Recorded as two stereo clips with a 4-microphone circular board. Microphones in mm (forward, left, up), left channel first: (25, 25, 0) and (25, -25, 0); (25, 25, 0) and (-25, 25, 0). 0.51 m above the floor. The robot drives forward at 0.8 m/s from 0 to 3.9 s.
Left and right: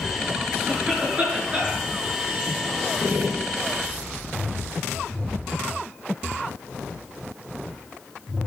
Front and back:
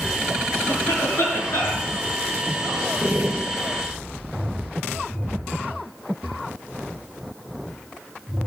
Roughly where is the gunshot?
Behind right.